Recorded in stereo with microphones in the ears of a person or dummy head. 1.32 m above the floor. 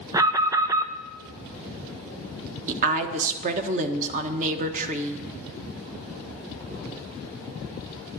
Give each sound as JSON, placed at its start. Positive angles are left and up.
{"t": 0.1, "sound": "an alarm", "side_deg": -20, "distance_m": 0.6}
{"t": 2.7, "sound": "a woman speaking", "side_deg": -40, "distance_m": 1.3}